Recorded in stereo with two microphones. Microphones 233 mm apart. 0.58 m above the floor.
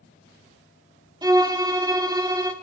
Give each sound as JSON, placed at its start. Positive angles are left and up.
{"t": 1.2, "sound": "a violin", "side_deg": -15, "distance_m": 0.7}